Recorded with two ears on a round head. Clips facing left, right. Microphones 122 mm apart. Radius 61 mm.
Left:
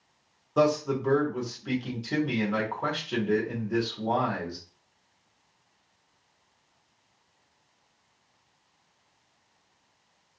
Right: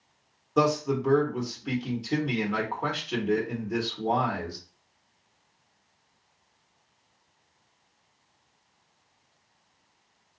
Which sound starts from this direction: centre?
A man speaking, at 0.6 s.